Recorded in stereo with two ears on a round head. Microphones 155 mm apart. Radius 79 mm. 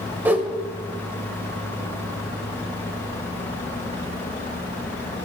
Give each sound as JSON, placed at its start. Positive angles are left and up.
{"t": 0.2, "sound": "a whoosh", "side_deg": -10, "distance_m": 0.8}